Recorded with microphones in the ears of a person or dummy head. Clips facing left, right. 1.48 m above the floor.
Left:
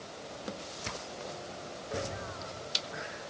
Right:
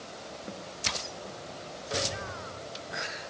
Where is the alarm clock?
No alarm clock in this recording.